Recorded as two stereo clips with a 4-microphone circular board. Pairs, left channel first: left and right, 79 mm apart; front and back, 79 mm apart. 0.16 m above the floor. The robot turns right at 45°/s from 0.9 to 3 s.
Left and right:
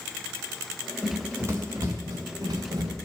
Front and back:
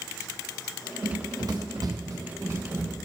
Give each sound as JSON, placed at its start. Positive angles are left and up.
{"t": 1.0, "sound": "running footsteps", "azimuth_deg": -150, "distance_m": 1.4}